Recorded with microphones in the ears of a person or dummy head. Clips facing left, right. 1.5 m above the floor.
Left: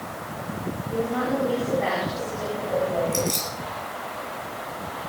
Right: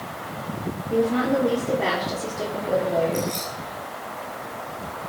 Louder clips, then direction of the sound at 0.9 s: Right 5 dB; 35° right (ahead or behind).